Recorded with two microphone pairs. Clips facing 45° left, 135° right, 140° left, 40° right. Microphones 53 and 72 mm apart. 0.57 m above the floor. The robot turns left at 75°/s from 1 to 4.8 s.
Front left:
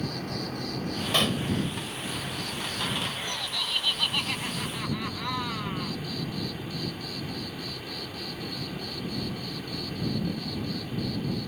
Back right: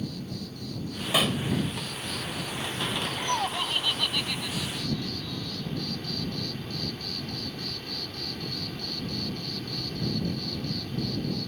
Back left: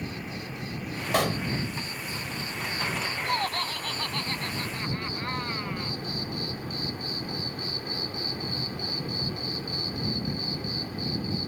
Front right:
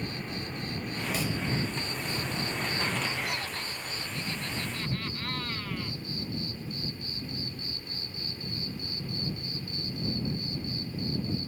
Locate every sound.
0.0 s an insect: 50° left; by 11.5 s 125° left
1.1 s a pop: 145° left; by 1.4 s 125° left
3.2 s laughter: 165° right; by 5.9 s 75° left